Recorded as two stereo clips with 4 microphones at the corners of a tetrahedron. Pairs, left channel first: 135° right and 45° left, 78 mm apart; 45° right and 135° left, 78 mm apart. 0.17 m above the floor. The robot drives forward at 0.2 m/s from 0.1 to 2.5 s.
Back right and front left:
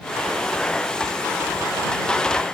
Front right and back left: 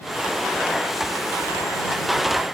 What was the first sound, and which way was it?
Only background noise.